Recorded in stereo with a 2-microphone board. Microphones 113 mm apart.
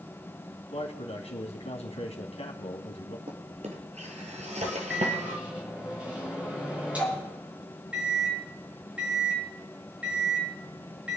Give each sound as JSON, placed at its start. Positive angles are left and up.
{"t": 0.7, "sound": "a man speaking", "side_deg": 70, "distance_m": 2.5}
{"t": 3.3, "sound": "a drawer", "side_deg": -80, "distance_m": 1.9}
{"t": 4.9, "sound": "a microwave", "side_deg": -10, "distance_m": 5.0}